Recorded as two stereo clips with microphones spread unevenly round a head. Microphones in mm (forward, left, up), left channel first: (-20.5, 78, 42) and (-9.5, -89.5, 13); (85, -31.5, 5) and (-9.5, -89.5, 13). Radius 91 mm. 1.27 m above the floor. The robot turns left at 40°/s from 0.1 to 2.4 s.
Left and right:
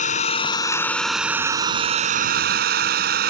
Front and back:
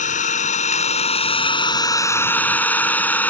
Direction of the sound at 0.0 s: 50° left.